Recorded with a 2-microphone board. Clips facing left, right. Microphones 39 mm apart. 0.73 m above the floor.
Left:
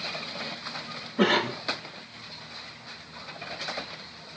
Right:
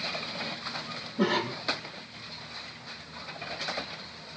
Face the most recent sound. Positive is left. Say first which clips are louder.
# left 4 dB
turn(degrees=55)  # may be behind; listen again after turning